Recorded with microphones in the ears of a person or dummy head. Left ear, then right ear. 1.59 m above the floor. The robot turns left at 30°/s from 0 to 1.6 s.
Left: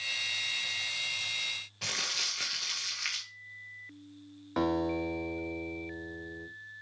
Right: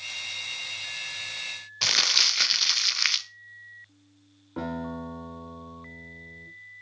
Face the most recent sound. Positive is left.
turn(degrees=40)  # may be behind; listen again after turning